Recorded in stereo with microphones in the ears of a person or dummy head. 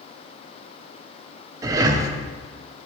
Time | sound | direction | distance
1.6 | breathing | 25° right (ahead or behind) | 0.5 m